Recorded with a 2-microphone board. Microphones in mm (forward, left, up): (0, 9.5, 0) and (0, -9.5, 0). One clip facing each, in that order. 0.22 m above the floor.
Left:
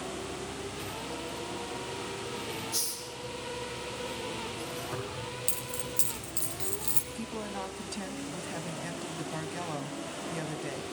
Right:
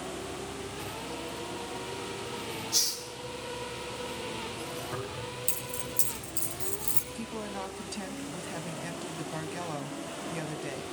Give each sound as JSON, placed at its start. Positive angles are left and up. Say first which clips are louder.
{"t": 2.7, "sound": "a hiss", "louder": "right 6 dB", "side_deg": -45, "distance_m": 2.5}
{"t": 4.9, "sound": "keys jangling", "louder": "even", "side_deg": 20, "distance_m": 5.5}
{"t": 7.2, "sound": "a woman speaking", "louder": "even", "side_deg": -5, "distance_m": 1.8}